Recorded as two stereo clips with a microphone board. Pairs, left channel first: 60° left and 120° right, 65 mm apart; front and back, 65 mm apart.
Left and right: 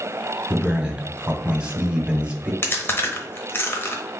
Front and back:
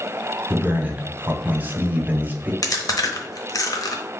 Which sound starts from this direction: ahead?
Chewing, at 2.6 s.